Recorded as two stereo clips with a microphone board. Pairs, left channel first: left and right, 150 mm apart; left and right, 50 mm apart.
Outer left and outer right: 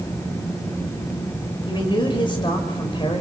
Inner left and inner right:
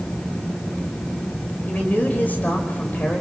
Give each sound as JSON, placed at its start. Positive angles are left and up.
{"t": 1.7, "sound": "a man speaking", "side_deg": 35, "distance_m": 5.0}